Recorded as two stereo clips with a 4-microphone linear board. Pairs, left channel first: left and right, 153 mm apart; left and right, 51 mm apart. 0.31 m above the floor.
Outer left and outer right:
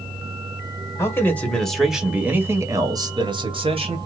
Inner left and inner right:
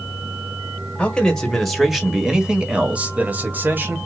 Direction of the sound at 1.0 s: 20° left (ahead or behind).